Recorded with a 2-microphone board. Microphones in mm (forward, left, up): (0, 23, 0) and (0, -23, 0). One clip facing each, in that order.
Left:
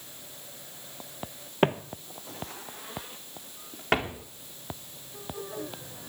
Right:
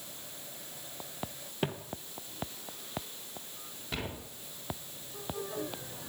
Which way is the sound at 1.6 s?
45° left (ahead or behind).